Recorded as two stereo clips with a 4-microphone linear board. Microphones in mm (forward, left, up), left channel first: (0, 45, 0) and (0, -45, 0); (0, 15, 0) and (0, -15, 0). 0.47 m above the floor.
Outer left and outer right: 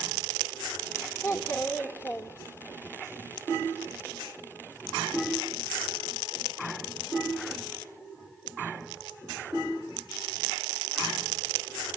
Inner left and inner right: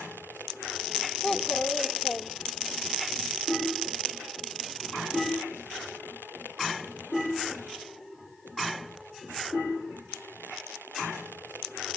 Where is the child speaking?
30° left (ahead or behind), 1.0 m.